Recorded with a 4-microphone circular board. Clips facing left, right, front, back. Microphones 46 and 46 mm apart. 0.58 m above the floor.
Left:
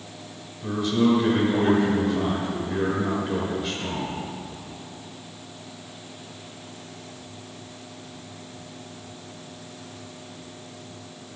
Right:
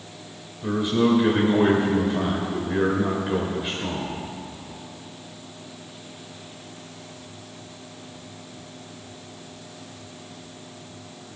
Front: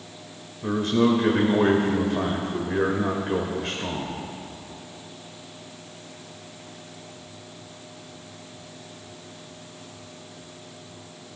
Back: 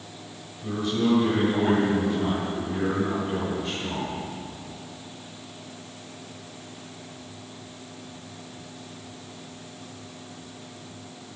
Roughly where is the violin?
I don't hear a violin.